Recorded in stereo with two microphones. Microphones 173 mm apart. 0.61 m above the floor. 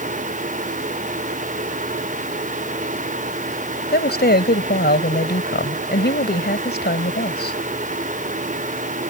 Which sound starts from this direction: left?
A woman speaking, at 3.9 s.